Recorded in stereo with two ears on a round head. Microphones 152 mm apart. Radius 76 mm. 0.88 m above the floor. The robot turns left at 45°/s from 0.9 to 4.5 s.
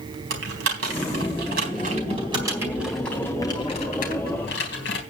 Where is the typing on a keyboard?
90° right, 4 m; by 5.0 s 70° left (ahead or behind), 4 m.